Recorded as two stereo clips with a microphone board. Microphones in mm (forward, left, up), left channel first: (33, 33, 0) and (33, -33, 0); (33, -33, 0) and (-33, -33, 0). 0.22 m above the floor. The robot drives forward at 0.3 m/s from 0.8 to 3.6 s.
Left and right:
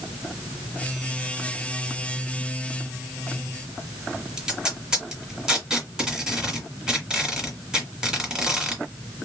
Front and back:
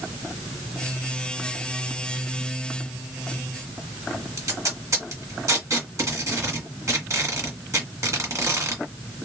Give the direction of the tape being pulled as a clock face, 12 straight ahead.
6 o'clock.